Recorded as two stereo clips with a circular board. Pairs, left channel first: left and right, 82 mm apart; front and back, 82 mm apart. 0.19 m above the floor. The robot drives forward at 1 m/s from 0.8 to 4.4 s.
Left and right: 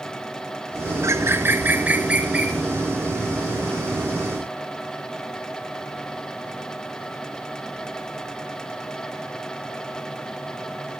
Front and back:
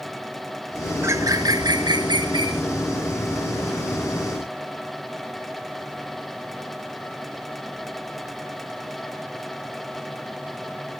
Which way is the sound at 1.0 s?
130° right.